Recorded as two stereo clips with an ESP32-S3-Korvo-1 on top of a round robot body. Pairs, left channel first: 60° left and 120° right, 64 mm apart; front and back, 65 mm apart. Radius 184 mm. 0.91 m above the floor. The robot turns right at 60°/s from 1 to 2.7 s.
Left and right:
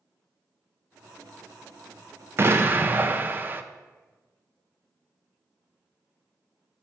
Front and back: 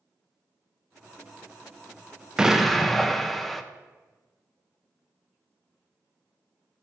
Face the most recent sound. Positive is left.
turn(degrees=-85)